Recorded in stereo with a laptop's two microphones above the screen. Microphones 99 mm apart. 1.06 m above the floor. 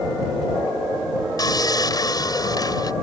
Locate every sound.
1.4 s sawing: 40° left (ahead or behind)